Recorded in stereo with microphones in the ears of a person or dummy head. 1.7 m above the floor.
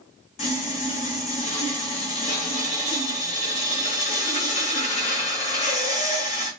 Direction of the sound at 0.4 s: 35° left (ahead or behind).